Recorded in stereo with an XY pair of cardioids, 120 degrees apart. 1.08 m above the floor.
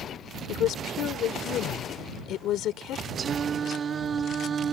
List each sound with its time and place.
0.5 s a woman speaking: 65° left
3.2 s singing: 45° right